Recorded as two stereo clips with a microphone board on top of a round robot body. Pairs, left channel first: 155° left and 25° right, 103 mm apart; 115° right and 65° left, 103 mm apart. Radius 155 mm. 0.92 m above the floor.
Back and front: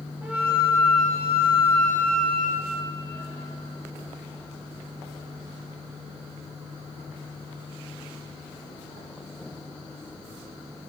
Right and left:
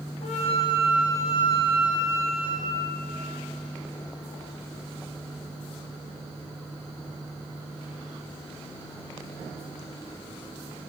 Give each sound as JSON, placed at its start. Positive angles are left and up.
{"t": 0.2, "sound": "a flute", "azimuth_deg": -100, "distance_m": 1.2}